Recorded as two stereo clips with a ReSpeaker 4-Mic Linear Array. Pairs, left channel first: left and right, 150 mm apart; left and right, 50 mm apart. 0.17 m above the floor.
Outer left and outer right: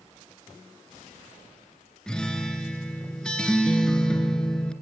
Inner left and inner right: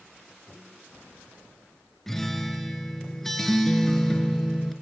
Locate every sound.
2.1 s a guitar: 5° left (ahead or behind), 2 m